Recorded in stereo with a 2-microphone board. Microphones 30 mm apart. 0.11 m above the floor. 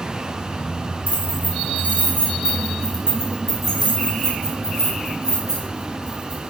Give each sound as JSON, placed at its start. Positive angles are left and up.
{"t": 1.1, "sound": "keys jangling", "side_deg": -50, "distance_m": 1.6}